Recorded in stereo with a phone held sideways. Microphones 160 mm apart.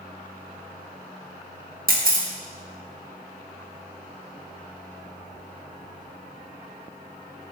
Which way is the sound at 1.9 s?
65° right (ahead or behind).